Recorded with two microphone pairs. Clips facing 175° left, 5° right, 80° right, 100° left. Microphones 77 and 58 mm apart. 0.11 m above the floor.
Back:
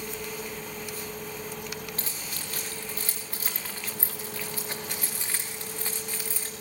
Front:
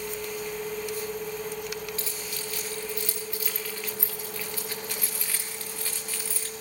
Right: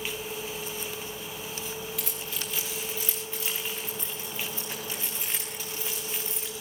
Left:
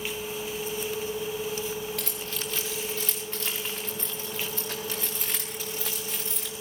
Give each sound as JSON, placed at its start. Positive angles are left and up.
{"t": 2.0, "sound": "keys jangling", "azimuth_deg": 130, "distance_m": 8.5}